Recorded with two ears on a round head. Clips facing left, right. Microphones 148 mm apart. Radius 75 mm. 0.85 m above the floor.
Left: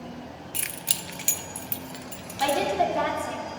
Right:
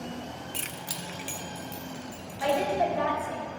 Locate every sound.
0.5 s keys jangling: 5° left (ahead or behind), 0.5 m; by 2.6 s 85° left, 1.4 m
2.4 s a woman speaking: 75° left (ahead or behind), 2.5 m